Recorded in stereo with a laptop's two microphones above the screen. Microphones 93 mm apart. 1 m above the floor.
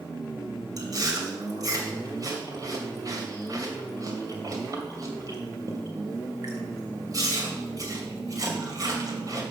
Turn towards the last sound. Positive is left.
turn(degrees=-45)  # may be behind; listen again after turning